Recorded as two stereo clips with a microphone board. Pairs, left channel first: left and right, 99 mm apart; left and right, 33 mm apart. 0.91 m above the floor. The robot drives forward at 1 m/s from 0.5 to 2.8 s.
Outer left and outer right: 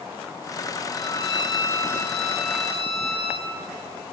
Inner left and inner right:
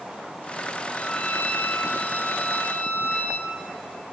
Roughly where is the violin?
Left.